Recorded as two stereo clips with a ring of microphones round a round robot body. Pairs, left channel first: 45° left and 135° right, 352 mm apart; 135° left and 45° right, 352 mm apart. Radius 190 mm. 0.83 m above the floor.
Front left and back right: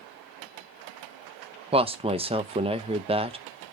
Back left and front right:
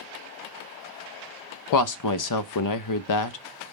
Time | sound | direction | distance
1.7 | a woman speaking | 155° left | 0.6 m